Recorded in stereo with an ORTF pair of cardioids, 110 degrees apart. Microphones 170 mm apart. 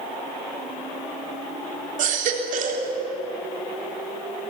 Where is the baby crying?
55° right, 3.5 m.